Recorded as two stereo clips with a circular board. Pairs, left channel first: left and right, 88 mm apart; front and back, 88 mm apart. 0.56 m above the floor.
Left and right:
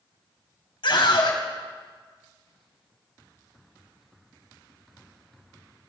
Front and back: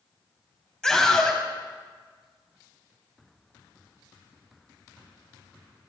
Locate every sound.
0.8 s a scream: 80° left, 3.5 m